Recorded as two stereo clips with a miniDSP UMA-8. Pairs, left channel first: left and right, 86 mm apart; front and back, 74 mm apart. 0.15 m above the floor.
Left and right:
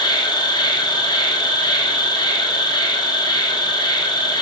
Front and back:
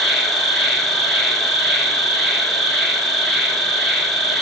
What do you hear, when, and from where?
0.0 s an insect: 85° left, 0.7 m